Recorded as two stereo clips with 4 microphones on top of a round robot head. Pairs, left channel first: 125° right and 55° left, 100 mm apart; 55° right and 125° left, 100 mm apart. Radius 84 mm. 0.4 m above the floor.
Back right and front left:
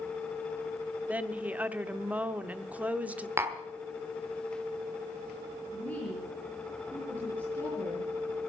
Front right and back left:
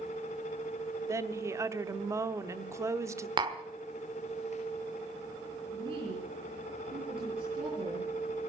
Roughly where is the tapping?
Left.